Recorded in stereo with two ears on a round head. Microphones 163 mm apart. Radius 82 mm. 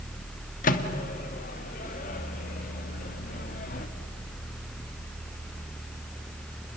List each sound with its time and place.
0.6 s a microwave: 45° left (ahead or behind), 1.5 m